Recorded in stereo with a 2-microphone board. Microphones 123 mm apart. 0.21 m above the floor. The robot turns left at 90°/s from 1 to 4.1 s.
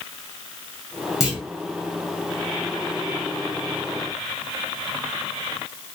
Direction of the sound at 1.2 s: Centre (ahead or behind).